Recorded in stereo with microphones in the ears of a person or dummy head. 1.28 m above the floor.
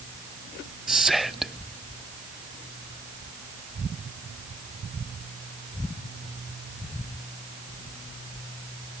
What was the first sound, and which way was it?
Whispering, centre (ahead or behind).